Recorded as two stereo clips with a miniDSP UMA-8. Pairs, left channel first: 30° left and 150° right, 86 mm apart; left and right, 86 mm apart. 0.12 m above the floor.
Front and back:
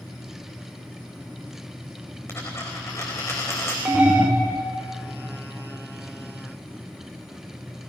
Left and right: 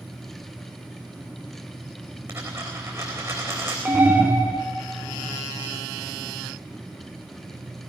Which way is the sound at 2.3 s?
30° right.